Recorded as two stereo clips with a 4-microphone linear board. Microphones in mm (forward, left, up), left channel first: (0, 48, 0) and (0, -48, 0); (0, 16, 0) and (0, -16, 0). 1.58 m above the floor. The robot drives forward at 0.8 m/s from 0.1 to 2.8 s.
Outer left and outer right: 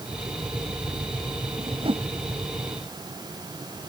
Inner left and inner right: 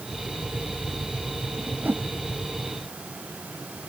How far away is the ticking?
I don't hear ticking.